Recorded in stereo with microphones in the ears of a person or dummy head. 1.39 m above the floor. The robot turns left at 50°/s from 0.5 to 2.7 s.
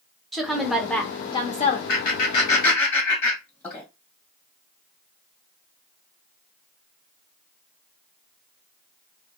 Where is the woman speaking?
170° right, 0.8 m; by 1.8 s 125° left, 0.8 m.